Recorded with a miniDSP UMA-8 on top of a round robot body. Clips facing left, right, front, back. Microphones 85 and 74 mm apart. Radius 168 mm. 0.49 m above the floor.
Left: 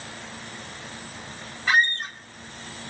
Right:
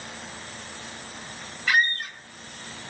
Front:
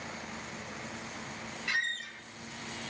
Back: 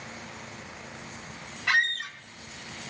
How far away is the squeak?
About 0.5 m.